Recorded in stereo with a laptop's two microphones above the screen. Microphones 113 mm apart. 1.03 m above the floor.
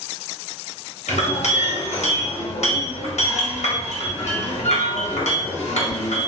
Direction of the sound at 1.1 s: 75° left (ahead or behind).